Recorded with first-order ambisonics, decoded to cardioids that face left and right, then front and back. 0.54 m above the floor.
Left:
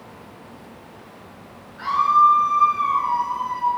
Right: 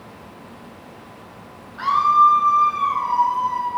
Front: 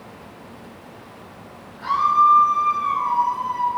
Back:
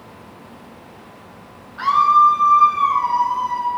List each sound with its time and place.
1.8 s a scream: 150° right, 6 m; by 3.7 s 165° right, 6 m